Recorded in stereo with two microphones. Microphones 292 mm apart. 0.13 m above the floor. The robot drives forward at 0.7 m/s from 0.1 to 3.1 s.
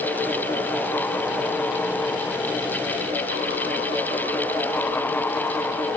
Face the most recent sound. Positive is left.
No sound to turn to.